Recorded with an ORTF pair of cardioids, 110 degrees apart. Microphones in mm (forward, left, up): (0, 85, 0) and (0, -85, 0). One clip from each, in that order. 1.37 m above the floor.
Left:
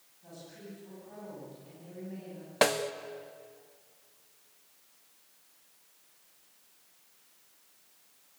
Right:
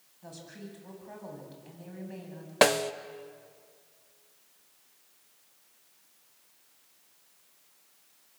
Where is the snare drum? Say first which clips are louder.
Right 4 dB; 20° right, 0.7 m.